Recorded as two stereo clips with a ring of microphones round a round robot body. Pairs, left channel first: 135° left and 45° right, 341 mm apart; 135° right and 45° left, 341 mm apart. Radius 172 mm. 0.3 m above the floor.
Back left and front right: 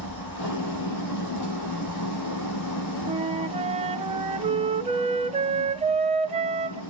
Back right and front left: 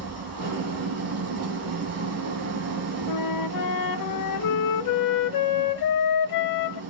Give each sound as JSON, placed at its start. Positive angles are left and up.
{"t": 0.0, "sound": "an engine running", "azimuth_deg": 95, "distance_m": 5.0}
{"t": 3.1, "sound": "a flute", "azimuth_deg": -115, "distance_m": 0.8}